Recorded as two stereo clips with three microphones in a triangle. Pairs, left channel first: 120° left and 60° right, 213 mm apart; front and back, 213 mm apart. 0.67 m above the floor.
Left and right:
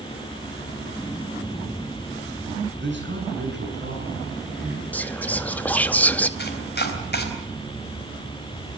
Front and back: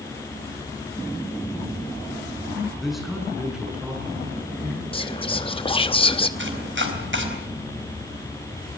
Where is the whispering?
45° left, 0.8 m.